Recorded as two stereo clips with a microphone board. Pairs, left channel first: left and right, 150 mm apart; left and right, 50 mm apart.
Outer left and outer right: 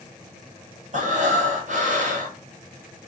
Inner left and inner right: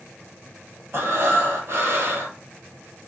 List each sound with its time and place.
0.9 s breathing: 55° right (ahead or behind), 0.8 m